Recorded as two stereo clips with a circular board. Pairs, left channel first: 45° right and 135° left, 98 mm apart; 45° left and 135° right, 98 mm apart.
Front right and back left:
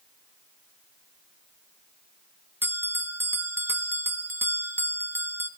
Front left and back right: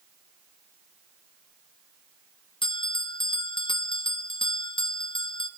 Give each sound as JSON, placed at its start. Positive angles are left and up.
{"t": 2.6, "sound": "a bell", "azimuth_deg": 70, "distance_m": 0.9}